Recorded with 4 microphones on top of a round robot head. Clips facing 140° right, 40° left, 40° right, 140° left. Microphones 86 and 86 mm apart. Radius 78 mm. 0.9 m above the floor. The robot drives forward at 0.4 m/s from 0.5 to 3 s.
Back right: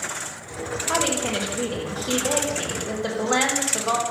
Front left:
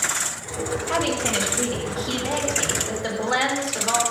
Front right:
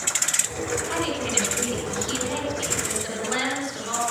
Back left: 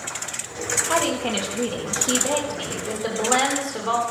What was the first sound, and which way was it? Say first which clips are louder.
A woman speaking: back right 1 dB, back left 4 dB; 175° left.